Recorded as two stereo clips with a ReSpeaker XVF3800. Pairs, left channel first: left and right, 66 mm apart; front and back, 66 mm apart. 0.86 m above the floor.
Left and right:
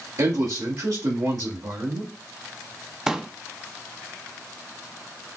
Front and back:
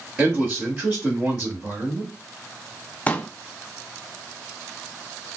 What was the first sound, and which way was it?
A man speaking, 100° right.